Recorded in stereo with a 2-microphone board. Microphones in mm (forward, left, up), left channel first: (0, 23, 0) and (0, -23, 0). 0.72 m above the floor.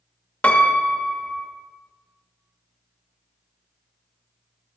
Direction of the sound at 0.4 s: 30° left (ahead or behind).